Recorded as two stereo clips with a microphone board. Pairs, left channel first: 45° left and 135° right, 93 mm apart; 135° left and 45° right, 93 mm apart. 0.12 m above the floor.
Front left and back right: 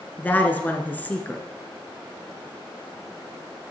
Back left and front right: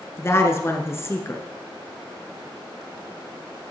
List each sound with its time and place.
0.2 s a woman speaking: 100° left, 1.4 m